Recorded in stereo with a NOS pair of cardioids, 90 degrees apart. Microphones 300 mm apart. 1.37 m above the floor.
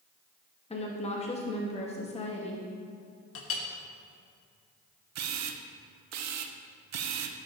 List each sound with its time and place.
0.7 s a woman speaking: 20° left, 2.5 m
3.4 s a clink: 50° left, 1.4 m
5.2 s a camera shutter: 60° right, 0.7 m